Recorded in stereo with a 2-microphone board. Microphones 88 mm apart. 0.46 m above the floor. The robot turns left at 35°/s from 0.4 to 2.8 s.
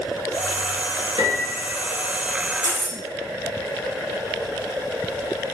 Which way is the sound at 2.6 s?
50° left (ahead or behind).